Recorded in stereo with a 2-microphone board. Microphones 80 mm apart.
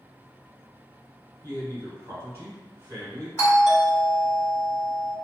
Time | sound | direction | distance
1.4 | a man speaking | 35° right (ahead or behind) | 1.3 m
3.4 | a doorbell | 30° left (ahead or behind) | 1.9 m